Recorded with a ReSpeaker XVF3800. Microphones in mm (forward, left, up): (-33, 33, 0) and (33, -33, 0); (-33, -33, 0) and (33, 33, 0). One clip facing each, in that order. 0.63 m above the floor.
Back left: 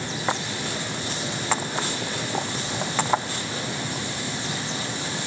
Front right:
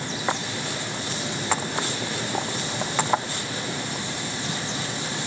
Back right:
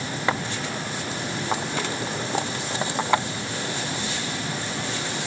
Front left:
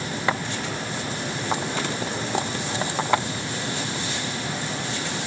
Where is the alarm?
No alarm in this recording.